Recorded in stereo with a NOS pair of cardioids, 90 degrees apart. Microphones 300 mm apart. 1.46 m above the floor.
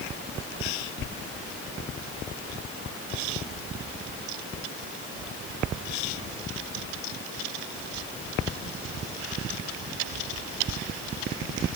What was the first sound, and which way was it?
Only background noise.